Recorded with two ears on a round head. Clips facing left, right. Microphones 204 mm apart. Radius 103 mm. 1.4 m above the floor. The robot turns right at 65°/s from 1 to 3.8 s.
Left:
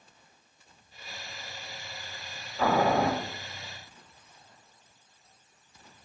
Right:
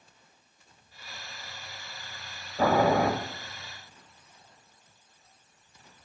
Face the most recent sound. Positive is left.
turn(degrees=-70)